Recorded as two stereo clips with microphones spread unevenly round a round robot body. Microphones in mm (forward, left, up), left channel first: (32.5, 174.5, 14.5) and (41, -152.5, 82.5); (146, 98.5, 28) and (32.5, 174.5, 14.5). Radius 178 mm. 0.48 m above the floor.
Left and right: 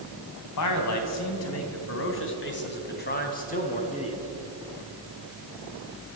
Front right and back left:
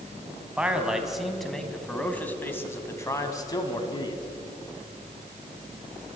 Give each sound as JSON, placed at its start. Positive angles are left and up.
{"t": 0.6, "sound": "a man speaking", "azimuth_deg": 65, "distance_m": 3.5}